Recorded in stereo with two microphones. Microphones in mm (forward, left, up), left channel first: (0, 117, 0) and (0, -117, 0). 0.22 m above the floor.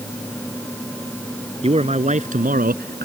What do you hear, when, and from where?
1.6 s a man speaking: 25° right (ahead or behind); by 3.1 s 45° right (ahead or behind)